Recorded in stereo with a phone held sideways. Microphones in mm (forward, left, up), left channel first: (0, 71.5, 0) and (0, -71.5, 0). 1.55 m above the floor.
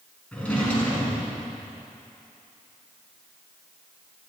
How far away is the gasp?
I don't hear a gasp.